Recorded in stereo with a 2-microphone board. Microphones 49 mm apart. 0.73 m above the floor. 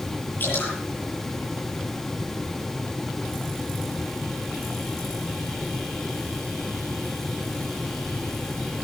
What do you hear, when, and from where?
0.4 s dripping: 45° left (ahead or behind), 9.5 m